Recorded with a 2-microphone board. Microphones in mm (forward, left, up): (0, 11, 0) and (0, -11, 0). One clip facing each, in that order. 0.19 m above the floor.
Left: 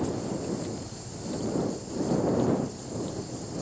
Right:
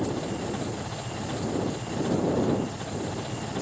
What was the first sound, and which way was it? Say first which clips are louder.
An engine running: right 1 dB; 80° right.